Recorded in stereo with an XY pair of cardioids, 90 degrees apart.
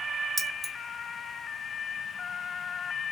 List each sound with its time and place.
0.4 s keys jangling: 20° right, 1.0 m